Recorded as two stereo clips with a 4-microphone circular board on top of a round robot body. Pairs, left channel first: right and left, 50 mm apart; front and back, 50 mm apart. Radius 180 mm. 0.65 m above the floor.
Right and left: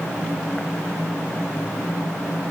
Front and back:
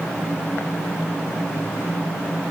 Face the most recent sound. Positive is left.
No sound to turn to.